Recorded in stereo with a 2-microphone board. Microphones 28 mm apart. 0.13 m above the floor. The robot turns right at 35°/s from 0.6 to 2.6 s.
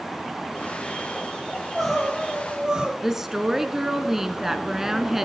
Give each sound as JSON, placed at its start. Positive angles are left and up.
{"t": 1.5, "sound": "crying", "azimuth_deg": 165, "distance_m": 4.0}
{"t": 3.0, "sound": "a woman speaking", "side_deg": -10, "distance_m": 1.2}